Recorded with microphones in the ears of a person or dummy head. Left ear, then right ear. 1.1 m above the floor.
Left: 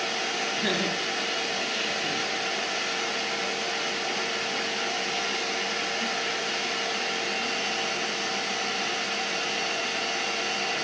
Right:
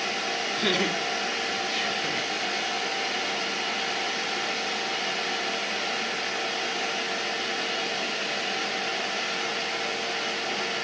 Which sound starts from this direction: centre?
Laughter, at 0.6 s.